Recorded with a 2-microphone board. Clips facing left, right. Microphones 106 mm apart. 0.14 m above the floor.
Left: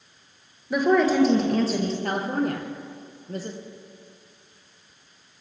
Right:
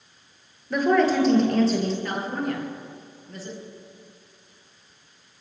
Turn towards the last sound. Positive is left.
turn(degrees=45)  # may be behind; listen again after turning